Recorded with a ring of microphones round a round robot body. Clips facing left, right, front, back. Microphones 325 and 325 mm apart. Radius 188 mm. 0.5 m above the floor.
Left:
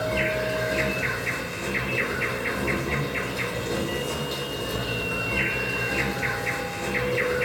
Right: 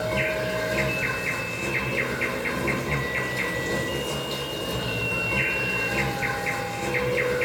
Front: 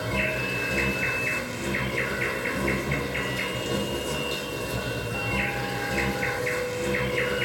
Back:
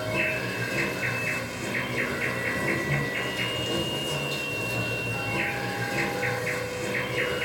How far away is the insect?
About 1.3 m.